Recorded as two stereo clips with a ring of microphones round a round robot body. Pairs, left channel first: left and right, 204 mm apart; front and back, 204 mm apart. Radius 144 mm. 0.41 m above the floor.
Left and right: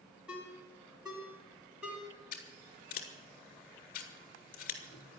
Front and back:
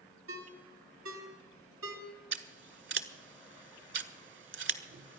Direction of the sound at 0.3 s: 175° right.